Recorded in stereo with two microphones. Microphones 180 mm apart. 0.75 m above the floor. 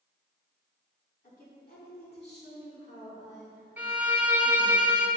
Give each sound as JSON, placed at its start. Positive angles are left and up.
{"t": 1.2, "sound": "a woman speaking", "side_deg": 50, "distance_m": 1.9}
{"t": 3.8, "sound": "a violin", "side_deg": -10, "distance_m": 0.7}